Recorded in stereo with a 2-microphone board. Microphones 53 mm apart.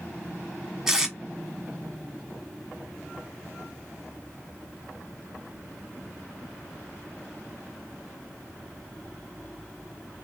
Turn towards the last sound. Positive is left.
turn(degrees=-5)  # may be behind; listen again after turning